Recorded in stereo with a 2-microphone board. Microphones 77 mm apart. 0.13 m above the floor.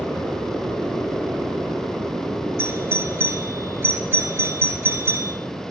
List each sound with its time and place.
2.6 s a doorbell: 35° right (ahead or behind), 2.5 m